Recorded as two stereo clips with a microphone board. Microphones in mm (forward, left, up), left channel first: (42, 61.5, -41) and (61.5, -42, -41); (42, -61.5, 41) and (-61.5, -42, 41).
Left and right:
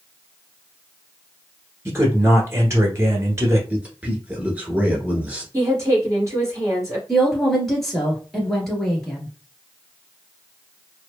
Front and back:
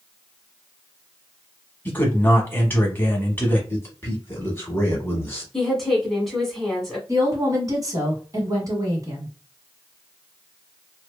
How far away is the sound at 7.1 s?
About 1.3 m.